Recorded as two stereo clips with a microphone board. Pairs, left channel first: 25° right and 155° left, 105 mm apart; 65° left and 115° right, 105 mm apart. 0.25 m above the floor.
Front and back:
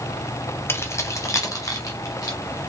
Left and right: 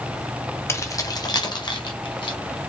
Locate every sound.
0.7 s keys jangling: 25° left, 0.7 m; by 2.4 s 30° left, 1.7 m